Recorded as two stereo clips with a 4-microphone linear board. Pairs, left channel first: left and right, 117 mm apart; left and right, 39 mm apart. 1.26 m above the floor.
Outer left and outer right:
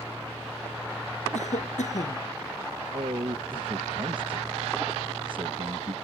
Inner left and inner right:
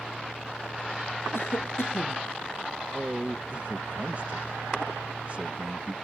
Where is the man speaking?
45° right (ahead or behind).